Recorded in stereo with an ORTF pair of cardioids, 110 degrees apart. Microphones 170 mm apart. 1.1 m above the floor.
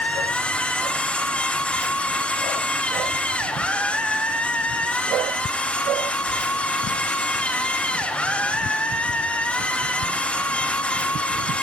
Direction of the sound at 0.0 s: 5° left.